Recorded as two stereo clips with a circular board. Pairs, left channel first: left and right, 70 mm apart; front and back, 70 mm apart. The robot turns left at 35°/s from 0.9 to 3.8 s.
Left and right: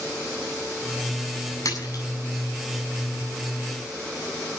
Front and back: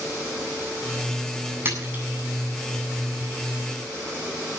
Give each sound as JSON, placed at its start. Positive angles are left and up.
{"t": 1.6, "sound": "a splash", "azimuth_deg": 125, "distance_m": 8.0}